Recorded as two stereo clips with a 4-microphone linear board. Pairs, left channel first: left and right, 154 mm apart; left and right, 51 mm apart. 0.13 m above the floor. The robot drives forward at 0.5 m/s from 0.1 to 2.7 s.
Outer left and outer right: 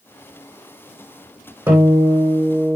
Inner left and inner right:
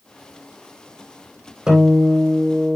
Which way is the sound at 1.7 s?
10° right (ahead or behind).